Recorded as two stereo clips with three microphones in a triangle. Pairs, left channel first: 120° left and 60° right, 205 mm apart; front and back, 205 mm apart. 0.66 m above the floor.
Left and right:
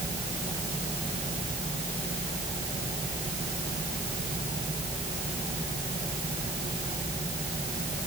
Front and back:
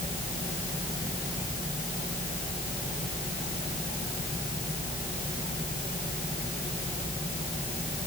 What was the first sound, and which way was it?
Only background noise.